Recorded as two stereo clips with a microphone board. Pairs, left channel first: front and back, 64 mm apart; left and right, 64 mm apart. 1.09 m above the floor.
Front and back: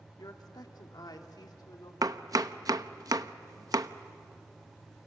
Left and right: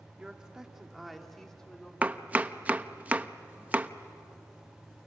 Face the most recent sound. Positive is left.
turn(degrees=-155)